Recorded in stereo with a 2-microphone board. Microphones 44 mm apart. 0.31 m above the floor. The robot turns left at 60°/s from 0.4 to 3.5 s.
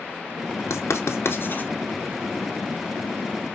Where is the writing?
80° left, 0.8 m; by 1.7 s 40° left (ahead or behind), 0.8 m.